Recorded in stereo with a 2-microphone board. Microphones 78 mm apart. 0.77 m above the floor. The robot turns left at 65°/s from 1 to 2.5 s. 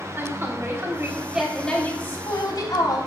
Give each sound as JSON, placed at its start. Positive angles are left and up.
{"t": 0.2, "sound": "a woman speaking", "azimuth_deg": -150, "distance_m": 4.0}